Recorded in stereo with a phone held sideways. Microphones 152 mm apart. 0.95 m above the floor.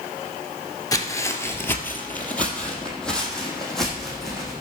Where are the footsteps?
20° left (ahead or behind), 1.0 m; by 4.5 s centre (ahead or behind), 3.5 m.